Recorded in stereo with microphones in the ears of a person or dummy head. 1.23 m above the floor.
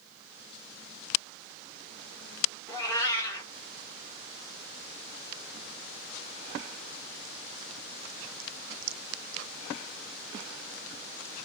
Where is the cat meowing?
20° left (ahead or behind), 1.2 m.